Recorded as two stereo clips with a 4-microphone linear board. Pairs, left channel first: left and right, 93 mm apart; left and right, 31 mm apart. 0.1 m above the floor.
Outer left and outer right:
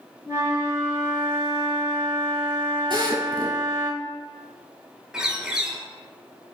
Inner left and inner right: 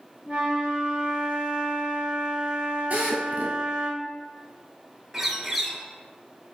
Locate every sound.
0.2 s a flute: 30° right (ahead or behind), 0.9 m
2.9 s a drill: 50° right (ahead or behind), 0.9 m
5.1 s a bird: 5° right (ahead or behind), 0.6 m